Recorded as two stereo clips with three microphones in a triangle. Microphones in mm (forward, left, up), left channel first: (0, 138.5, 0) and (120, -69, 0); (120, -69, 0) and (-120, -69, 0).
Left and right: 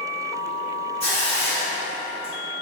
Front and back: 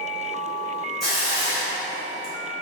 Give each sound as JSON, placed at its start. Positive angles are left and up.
{"t": 1.0, "sound": "a hiss", "azimuth_deg": -90, "distance_m": 1.7}